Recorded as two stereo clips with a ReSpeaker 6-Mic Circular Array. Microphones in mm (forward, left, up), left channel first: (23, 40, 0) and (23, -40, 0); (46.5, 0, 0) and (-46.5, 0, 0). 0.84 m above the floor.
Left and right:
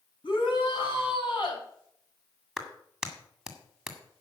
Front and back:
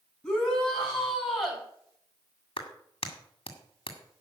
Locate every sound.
0.2 s a shout: 85° left, 5.5 m; by 1.6 s 90° left, 5 m
2.6 s a clap: 5° right, 2.0 m